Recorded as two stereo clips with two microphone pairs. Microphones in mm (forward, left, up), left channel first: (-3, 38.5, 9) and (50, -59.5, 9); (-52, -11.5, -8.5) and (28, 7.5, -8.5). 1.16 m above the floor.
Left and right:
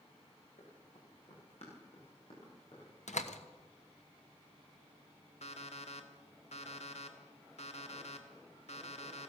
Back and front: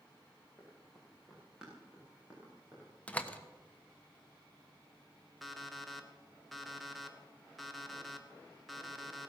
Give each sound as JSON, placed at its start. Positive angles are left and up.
{"t": 0.6, "sound": "running footsteps", "azimuth_deg": 105, "distance_m": 6.5}
{"t": 3.1, "sound": "a door slam", "azimuth_deg": 120, "distance_m": 1.1}
{"t": 5.4, "sound": "an alarm clock", "azimuth_deg": 105, "distance_m": 1.3}